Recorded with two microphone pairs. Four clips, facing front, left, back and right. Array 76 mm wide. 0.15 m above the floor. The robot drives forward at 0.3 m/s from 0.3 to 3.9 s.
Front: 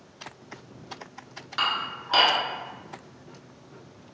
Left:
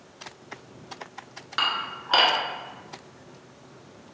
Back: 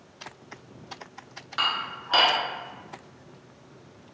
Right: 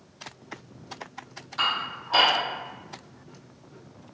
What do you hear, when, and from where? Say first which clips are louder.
1.6 s dishes clattering: even, front 1 dB; 85° left, 1.1 m; by 2.3 s 100° left, 1.1 m